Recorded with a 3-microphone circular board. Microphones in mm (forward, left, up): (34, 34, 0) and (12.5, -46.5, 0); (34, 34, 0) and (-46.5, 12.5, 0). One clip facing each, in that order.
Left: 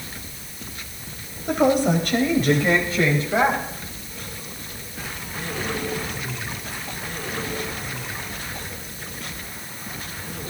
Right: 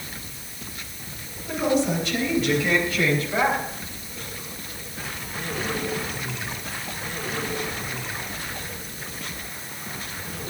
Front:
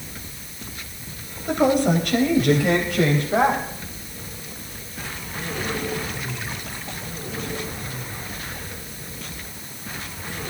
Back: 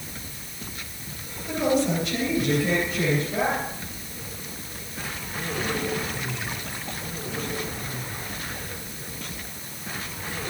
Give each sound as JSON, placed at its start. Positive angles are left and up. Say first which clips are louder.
{"t": 1.5, "sound": "a woman speaking", "louder": "left 4 dB, front 4 dB", "azimuth_deg": 50, "distance_m": 3.5}